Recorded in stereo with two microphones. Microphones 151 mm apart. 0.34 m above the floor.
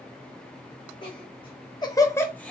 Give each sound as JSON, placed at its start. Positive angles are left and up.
{"t": 1.0, "sound": "laughter", "side_deg": 35, "distance_m": 1.4}